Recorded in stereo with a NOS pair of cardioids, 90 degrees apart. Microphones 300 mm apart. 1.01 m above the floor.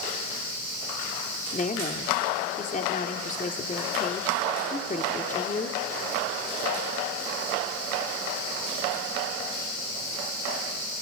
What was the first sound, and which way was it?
A woman speaking, 25° left.